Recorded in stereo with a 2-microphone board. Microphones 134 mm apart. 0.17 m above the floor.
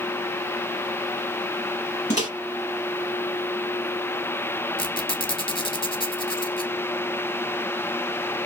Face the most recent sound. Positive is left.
turn(degrees=40)  # may be behind; listen again after turning